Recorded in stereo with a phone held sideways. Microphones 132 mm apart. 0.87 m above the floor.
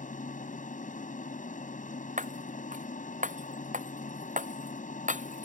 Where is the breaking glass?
75° right (ahead or behind).